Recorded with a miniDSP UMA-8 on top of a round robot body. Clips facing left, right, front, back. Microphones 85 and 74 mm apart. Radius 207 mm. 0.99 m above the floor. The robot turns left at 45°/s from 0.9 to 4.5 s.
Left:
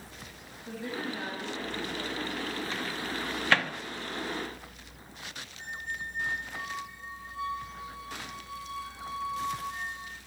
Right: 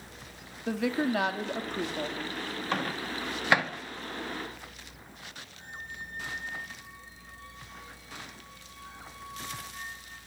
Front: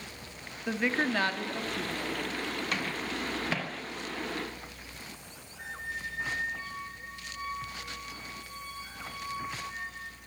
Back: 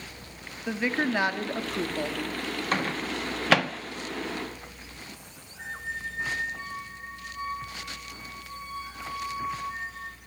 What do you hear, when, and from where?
0.7 s a woman speaking: 90° right, 2.5 m; by 2.2 s 150° right, 2.5 m
2.7 s a microwave: 130° right, 1.5 m; by 3.7 s 175° right, 1.5 m
5.6 s a squeak: 110° left, 2 m